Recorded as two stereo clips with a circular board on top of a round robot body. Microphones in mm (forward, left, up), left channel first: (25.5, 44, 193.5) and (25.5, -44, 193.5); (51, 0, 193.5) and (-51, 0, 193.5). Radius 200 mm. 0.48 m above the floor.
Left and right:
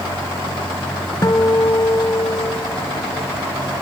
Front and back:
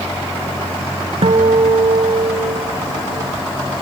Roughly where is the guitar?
Behind left.